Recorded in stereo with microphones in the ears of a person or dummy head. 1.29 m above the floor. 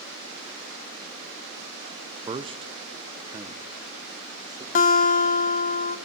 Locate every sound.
2.3 s a man speaking: 20° right (ahead or behind), 0.5 m
4.8 s a guitar: 40° left (ahead or behind), 0.9 m